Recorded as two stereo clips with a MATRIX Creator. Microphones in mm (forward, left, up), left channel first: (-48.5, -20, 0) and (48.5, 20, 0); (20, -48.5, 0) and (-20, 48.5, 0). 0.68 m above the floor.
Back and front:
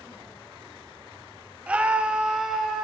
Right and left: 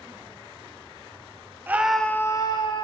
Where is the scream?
80° left, 0.5 m; by 2.9 s 65° right, 0.8 m.